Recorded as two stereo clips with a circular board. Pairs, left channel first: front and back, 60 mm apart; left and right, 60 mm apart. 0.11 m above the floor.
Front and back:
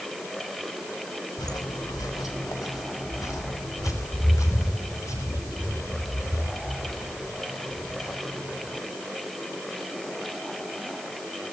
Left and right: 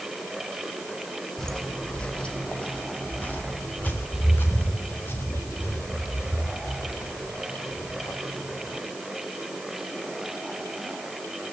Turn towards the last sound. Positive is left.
turn(degrees=45)